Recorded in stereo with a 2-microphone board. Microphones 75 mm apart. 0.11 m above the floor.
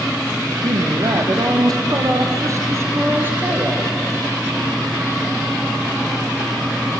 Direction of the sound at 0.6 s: 70° right (ahead or behind).